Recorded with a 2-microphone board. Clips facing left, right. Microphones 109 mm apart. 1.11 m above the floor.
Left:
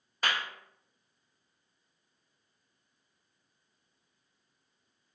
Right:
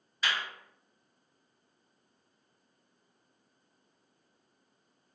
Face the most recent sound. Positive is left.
turn(degrees=50)  # may be behind; listen again after turning